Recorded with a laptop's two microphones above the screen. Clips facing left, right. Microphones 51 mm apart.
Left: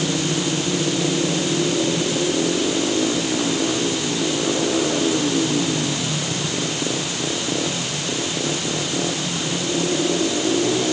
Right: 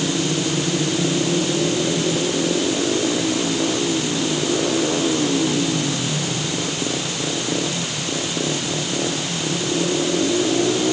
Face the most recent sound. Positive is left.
No sound to turn to.